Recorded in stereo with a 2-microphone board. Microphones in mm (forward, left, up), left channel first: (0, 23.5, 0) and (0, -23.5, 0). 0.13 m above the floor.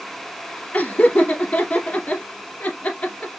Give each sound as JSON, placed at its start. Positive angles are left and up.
{"t": 0.7, "sound": "laughter", "side_deg": 35, "distance_m": 2.5}